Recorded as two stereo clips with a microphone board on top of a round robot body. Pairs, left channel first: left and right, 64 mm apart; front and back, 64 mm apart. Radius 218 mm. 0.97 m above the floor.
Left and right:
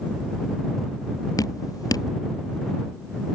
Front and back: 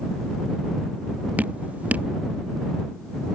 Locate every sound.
1.4 s dripping: 115° left